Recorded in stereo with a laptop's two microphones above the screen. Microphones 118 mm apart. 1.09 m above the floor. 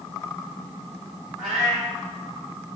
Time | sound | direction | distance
1.4 | a cat meowing | 5° right (ahead or behind) | 1.9 m